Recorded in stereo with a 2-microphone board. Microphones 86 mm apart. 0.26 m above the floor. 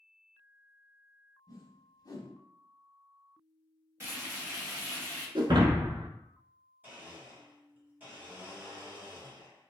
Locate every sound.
1.5 s a whoosh: 45° left (ahead or behind), 0.5 m
4.0 s frying: 30° right (ahead or behind), 1.1 m
5.3 s breaking glass: 60° right (ahead or behind), 0.5 m
6.8 s a blender: 20° right (ahead or behind), 1.2 m